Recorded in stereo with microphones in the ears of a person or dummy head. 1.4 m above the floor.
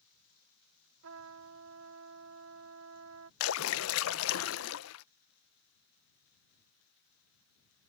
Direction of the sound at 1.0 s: 70° right (ahead or behind).